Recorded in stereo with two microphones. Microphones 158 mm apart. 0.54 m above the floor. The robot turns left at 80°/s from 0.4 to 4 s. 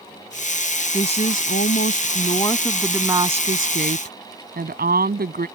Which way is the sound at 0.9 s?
150° left.